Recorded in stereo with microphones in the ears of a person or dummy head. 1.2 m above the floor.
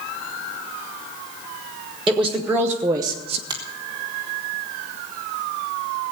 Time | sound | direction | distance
2.1 | a woman speaking | 5° right (ahead or behind) | 1.6 m
3.5 | a finger snap | 25° right (ahead or behind) | 1.4 m